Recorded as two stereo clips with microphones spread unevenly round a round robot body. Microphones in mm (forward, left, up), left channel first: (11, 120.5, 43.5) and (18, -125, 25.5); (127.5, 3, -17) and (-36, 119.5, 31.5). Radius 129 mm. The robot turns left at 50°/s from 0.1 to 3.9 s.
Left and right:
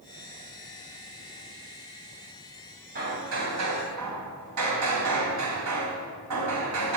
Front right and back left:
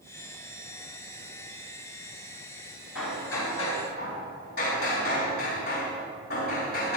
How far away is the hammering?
About 3.5 m.